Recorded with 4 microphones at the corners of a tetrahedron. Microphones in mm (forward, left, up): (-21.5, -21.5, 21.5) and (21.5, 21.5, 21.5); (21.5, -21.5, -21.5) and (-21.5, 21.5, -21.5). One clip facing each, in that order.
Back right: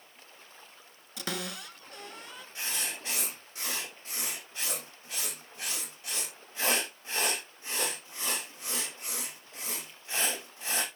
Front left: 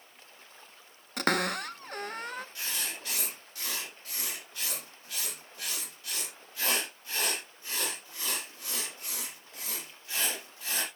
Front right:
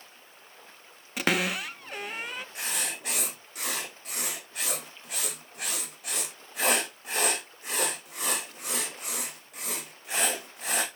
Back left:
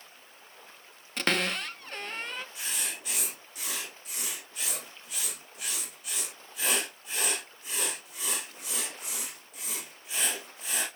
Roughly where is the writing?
Right.